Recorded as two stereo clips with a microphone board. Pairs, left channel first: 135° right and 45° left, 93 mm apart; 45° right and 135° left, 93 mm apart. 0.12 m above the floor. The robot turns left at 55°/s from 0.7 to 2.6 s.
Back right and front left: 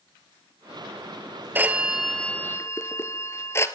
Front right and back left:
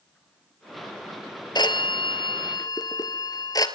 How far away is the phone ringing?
About 1.5 m.